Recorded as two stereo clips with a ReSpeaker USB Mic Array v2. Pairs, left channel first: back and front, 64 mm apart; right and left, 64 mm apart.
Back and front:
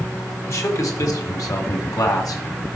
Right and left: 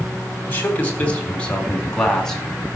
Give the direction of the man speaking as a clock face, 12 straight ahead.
5 o'clock.